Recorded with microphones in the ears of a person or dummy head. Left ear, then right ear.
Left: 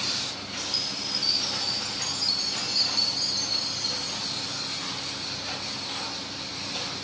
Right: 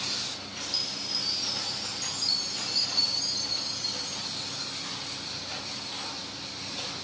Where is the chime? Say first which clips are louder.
Left 2 dB; centre (ahead or behind), 7 m.